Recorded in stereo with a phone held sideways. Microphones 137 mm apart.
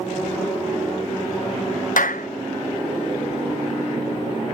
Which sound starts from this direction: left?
A clap, at 2.0 s.